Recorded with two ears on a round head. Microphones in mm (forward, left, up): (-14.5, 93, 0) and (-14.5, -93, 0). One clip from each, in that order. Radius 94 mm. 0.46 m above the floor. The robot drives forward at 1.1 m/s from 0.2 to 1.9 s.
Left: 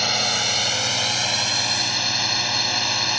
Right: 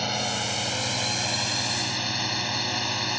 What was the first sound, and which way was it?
A drone, 55° left (ahead or behind).